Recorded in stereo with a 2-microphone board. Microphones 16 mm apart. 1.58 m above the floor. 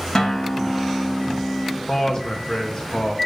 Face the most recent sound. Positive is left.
turn(degrees=45)  # may be behind; listen again after turning